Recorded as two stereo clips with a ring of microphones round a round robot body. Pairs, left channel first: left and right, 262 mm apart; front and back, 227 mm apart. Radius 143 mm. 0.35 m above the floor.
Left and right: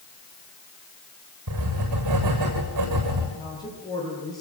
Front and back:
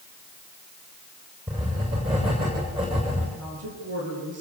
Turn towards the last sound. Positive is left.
turn(degrees=165)